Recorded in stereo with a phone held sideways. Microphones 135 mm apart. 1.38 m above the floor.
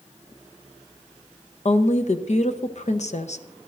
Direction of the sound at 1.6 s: 55° left (ahead or behind).